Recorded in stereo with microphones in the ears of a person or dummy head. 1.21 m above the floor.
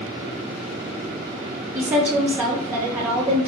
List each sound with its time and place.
1.7 s a woman speaking: 10° right (ahead or behind), 0.5 m